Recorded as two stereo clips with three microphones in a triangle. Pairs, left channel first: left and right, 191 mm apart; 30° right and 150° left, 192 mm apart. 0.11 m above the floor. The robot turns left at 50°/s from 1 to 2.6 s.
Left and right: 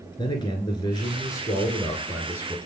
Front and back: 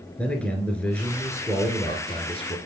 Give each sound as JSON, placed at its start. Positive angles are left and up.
{"t": 0.2, "sound": "a man speaking", "azimuth_deg": 50, "distance_m": 1.7}